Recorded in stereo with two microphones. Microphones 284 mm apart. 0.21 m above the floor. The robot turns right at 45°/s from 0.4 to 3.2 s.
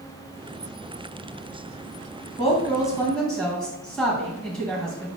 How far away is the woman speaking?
About 1.6 m.